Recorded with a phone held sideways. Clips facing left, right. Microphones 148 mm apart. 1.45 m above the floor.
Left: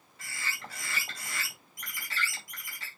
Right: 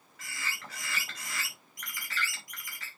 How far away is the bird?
About 5.5 m.